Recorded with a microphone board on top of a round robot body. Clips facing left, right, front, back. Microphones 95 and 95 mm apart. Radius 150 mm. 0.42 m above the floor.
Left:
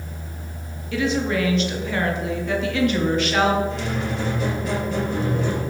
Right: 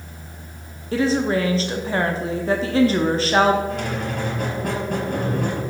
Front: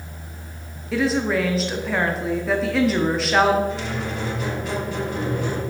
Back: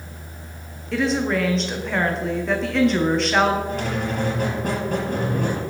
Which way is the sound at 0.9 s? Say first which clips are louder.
Right 3 dB, front 1 dB; 85° right.